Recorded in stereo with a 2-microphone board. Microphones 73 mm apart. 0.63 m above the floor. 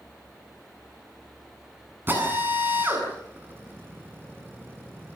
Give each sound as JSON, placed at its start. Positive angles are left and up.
{"t": 2.1, "sound": "a drill", "side_deg": -30, "distance_m": 7.5}